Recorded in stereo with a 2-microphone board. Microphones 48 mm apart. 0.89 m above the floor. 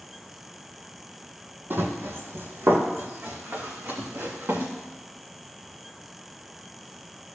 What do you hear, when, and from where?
1.7 s running footsteps: 55° right (ahead or behind), 1.6 m; by 4.7 s 75° right (ahead or behind), 3.5 m